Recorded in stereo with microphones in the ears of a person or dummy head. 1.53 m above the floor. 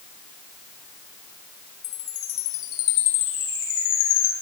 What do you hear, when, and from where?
1.8 s a chime: 80° left, 7 m